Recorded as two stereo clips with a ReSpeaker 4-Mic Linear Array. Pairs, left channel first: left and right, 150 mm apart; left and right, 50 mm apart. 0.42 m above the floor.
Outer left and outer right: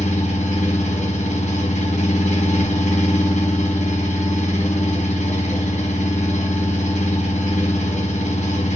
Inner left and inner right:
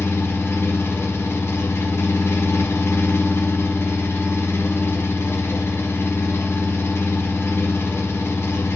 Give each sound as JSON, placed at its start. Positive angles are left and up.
{"t": 0.0, "sound": "an engine running", "side_deg": 55, "distance_m": 2.0}